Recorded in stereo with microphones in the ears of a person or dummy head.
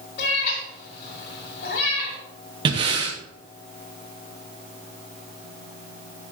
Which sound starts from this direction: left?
A cat meowing, at 0.2 s.